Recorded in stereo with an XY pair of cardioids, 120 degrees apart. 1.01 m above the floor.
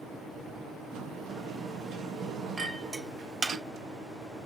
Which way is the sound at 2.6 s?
15° right.